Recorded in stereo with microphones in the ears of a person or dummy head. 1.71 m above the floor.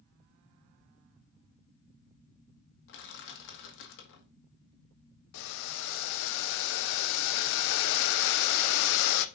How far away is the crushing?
About 1.5 m.